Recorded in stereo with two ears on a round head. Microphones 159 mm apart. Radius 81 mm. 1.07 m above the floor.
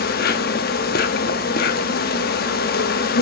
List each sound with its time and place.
0.0 s an insect: 60° left (ahead or behind), 1.0 m